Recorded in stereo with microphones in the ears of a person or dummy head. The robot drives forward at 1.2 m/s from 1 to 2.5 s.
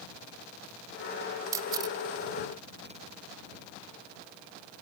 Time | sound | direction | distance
1.5 | a camera shutter | 20° right (ahead or behind) | ?